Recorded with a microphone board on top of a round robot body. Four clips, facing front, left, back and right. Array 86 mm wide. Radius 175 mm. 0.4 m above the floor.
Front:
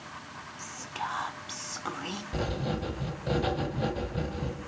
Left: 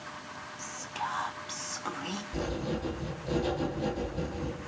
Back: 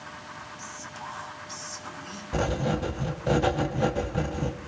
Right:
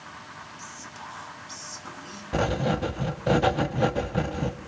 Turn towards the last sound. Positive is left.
turn(degrees=-110)